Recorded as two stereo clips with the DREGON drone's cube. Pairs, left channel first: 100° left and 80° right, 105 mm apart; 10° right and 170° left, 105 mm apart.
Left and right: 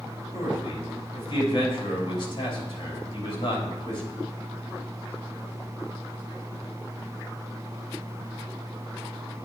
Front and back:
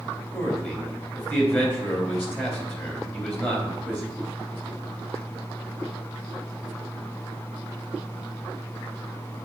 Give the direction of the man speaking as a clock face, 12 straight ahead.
10 o'clock.